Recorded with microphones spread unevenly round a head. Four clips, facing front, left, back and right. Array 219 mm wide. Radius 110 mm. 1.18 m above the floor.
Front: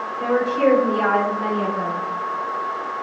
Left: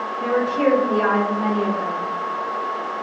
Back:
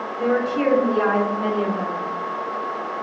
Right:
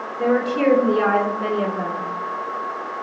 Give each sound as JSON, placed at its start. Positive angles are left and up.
{"t": 0.2, "sound": "a woman speaking", "azimuth_deg": -110, "distance_m": 3.5}